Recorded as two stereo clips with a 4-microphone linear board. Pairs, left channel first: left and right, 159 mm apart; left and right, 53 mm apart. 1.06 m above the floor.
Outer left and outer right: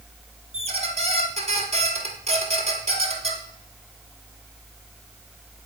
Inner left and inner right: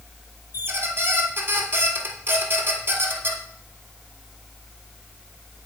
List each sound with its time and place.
0.5 s a squeak: 40° right (ahead or behind), 1.4 m